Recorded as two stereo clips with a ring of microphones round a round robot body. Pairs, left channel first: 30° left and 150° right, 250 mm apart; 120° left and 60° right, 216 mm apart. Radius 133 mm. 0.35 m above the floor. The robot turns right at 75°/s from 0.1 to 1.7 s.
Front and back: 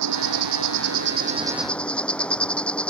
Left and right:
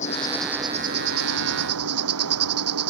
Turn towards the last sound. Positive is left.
turn(degrees=-55)